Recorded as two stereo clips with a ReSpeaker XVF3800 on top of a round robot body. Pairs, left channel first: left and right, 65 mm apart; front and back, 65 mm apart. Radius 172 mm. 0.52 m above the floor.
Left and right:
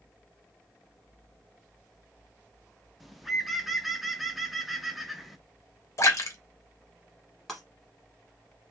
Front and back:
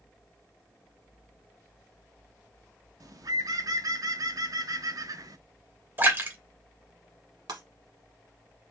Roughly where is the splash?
Behind left.